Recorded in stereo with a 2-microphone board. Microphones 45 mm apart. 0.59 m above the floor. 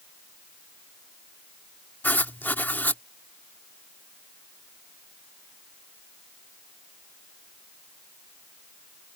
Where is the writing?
45° left (ahead or behind).